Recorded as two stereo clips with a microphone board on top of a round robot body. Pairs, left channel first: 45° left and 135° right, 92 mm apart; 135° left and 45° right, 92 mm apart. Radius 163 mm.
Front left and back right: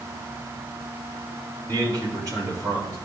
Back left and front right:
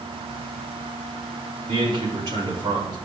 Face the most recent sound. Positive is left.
turn(degrees=-85)